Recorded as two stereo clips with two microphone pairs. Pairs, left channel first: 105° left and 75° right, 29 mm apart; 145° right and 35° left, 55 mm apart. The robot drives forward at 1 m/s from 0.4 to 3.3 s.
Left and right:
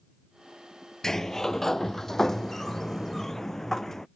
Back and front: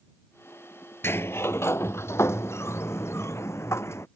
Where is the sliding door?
175° left; by 4.1 s straight behind.